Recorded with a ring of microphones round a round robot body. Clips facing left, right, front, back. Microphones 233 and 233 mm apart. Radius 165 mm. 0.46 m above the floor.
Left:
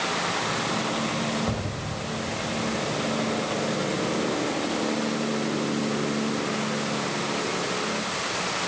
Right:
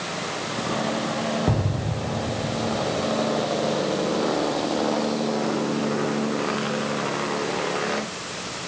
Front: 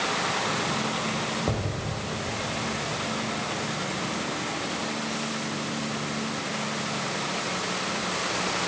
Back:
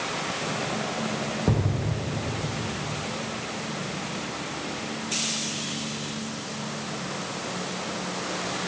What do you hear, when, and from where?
1.5 s an explosion: 125° right